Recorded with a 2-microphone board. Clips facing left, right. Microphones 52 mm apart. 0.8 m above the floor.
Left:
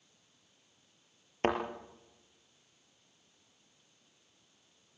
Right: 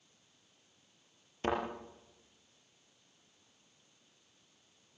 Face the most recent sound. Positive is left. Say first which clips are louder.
# left 3 dB
turn(degrees=45)  # may be behind; listen again after turning